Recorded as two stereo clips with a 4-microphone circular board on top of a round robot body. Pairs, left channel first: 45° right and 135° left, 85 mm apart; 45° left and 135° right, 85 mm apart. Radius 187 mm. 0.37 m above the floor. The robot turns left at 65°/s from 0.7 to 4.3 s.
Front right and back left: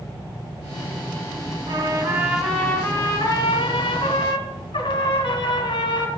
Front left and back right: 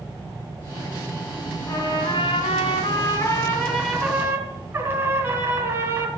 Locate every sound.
1.7 s a trumpet: 100° left, 2.5 m; by 6.1 s 75° right, 2.5 m